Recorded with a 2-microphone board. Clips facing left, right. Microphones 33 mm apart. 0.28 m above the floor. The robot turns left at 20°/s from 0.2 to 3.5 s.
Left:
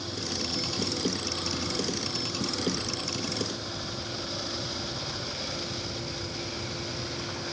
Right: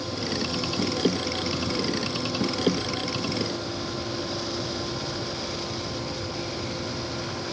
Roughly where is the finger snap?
No finger snap in this recording.